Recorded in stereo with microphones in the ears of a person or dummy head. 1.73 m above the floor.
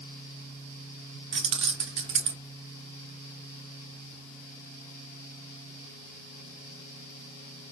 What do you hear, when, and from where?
1.3 s keys jangling: 35° right (ahead or behind), 0.7 m